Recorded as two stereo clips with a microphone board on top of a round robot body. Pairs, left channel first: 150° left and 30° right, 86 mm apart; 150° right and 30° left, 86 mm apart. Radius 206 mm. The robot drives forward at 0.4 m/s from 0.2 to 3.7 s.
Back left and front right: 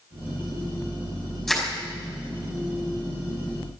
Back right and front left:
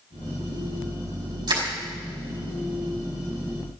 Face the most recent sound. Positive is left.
turn(degrees=75)